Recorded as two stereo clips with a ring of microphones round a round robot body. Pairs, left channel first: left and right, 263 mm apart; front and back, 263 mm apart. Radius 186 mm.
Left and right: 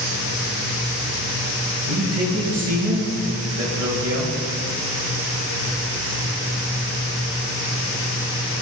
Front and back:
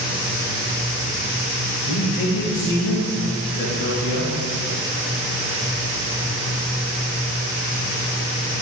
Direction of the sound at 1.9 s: 75° right.